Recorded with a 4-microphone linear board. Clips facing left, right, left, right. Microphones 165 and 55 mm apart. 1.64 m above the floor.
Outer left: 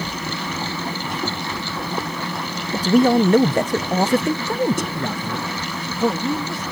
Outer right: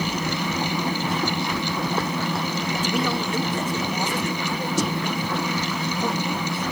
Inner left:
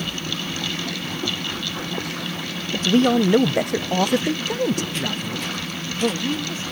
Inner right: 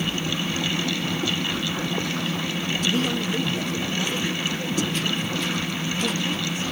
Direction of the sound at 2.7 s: 35° left (ahead or behind).